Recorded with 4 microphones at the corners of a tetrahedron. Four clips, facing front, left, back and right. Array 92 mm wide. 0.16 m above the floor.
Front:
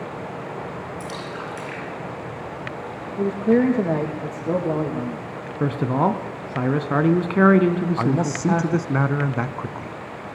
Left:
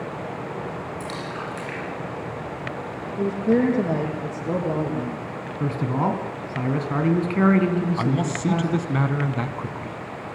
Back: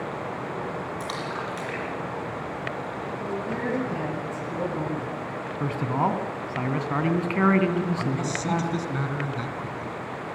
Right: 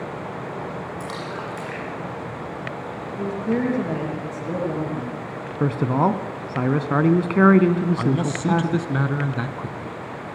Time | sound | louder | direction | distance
1.0 | a splash | right 1 dB, back 1 dB | 160° right | 6.5 m
3.2 | a man speaking | left 3 dB, front 14 dB | 20° left | 6.5 m
5.6 | a man speaking | right 4 dB, front 5 dB | 55° right | 1.5 m
8.0 | a man speaking | right 1 dB, front 6 dB | straight ahead | 1.1 m